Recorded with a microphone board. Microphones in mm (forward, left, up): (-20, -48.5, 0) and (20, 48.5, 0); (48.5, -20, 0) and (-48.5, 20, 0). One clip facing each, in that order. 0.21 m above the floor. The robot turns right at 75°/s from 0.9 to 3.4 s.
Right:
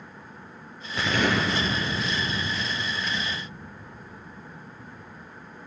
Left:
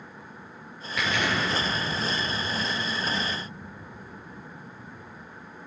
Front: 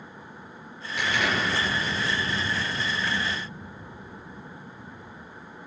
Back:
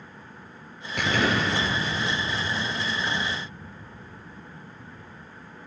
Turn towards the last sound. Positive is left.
turn(degrees=10)